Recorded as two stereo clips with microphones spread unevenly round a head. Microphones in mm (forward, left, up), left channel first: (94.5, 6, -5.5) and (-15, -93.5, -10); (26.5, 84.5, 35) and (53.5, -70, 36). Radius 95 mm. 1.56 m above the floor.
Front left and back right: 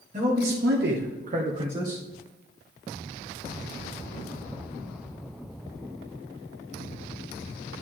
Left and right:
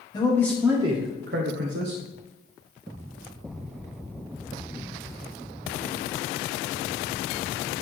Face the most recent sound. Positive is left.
turn(degrees=-75)